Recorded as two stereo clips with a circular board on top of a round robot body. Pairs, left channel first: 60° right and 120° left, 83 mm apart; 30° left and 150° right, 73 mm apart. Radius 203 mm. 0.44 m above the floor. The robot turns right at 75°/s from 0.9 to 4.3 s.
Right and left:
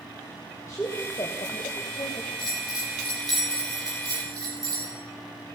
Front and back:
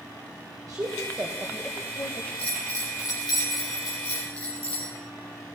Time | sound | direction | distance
0.7 | a woman speaking | 115° right | 3 m
2.4 | a bell | 40° right | 7.5 m